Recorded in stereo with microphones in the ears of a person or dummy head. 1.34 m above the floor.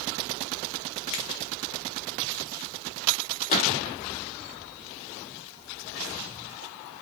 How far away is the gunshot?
About 0.9 m.